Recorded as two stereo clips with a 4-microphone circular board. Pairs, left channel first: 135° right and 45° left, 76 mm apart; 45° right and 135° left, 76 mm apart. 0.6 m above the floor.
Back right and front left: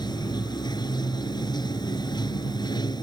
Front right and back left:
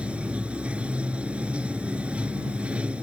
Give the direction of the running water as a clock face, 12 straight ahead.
5 o'clock.